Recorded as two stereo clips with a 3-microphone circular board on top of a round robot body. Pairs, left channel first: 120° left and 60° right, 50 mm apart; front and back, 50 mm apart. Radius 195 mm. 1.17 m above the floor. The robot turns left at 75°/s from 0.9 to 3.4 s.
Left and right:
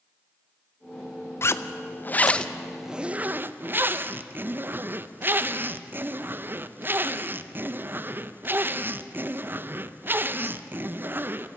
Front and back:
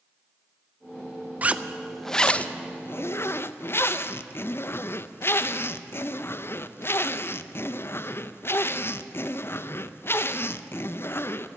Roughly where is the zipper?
Behind left.